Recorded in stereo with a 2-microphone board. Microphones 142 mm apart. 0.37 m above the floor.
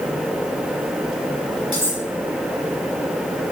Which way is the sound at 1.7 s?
35° right (ahead or behind).